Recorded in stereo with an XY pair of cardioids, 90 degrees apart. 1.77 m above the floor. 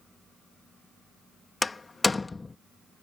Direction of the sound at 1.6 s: 25° left.